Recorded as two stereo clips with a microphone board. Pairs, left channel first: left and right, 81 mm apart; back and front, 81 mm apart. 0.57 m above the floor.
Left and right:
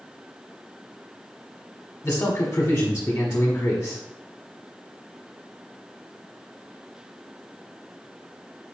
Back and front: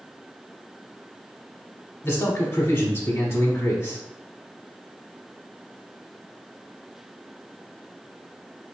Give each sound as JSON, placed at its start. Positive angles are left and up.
{"t": 2.0, "sound": "a man speaking", "azimuth_deg": 145, "distance_m": 1.1}